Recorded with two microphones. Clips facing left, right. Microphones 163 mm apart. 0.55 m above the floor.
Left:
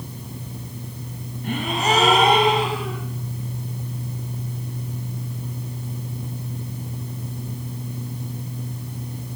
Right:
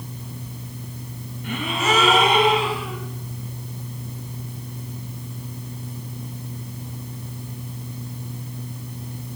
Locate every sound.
1.4 s a gasp: 40° left (ahead or behind), 4 m